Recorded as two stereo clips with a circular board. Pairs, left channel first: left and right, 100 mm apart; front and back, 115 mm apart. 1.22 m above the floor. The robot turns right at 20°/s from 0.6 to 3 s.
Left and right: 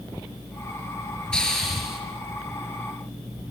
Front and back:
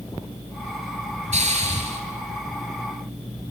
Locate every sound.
1.3 s a hiss: 170° left, 5 m; by 2.0 s 175° right, 5 m